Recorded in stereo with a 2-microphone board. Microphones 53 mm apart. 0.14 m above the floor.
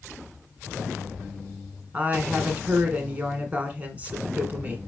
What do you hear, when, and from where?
1.9 s a woman speaking: 25° right (ahead or behind), 1.1 m